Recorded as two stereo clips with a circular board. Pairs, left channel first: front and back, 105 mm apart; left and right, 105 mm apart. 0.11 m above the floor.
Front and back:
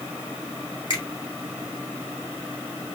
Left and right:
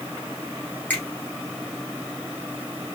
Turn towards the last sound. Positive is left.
turn(degrees=20)